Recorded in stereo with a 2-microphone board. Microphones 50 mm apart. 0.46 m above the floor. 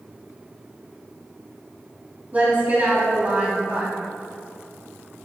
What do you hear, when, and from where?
2.3 s a woman speaking: 30° right (ahead or behind), 3 m